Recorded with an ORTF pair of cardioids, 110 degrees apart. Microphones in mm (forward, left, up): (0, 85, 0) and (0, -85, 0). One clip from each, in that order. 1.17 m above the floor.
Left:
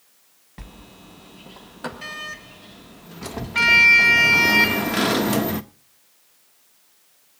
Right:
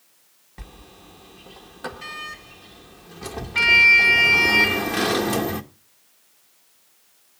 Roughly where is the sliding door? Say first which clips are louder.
Left 1 dB; ahead.